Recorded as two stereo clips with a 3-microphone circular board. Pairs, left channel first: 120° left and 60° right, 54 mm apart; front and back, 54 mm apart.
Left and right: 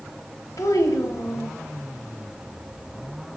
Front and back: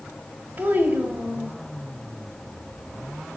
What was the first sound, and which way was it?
A child speaking, 120° left.